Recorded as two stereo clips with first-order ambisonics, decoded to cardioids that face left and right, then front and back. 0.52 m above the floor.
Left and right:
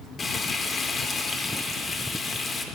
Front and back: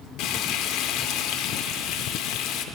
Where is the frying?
25° left, 0.6 m.